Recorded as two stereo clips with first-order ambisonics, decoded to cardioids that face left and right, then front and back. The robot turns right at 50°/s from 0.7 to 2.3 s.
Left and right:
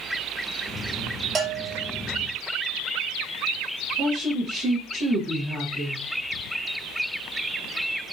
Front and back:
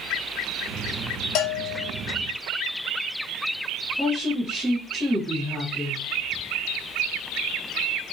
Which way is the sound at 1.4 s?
35° right.